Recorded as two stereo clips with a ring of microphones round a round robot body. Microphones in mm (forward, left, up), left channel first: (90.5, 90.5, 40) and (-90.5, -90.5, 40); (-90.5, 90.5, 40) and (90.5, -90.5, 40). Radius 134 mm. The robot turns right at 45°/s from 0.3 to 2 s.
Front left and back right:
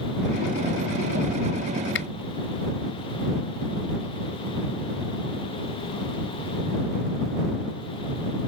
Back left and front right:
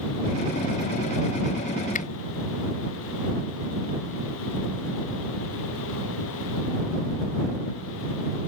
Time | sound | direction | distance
1.9 | a finger snap | 80° left | ?